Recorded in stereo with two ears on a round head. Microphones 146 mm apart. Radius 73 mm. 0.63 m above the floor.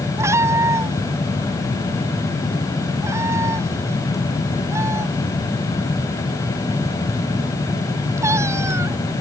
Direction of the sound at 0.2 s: 15° right (ahead or behind).